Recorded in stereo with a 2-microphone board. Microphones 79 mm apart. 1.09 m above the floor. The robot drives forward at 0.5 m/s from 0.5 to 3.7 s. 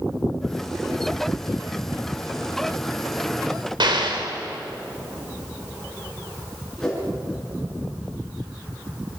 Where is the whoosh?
5° left (ahead or behind), 9 m.